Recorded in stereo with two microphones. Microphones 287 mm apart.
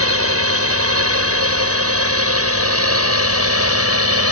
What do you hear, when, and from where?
0.0 s a drone: 55° right (ahead or behind)